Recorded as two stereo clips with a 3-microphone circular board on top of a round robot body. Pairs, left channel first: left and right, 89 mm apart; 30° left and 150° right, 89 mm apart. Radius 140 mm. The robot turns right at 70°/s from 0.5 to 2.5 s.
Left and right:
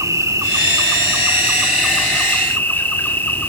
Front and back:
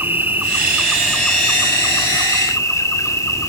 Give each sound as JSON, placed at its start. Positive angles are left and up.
{"t": 0.0, "sound": "an insect", "azimuth_deg": -100, "distance_m": 1.7}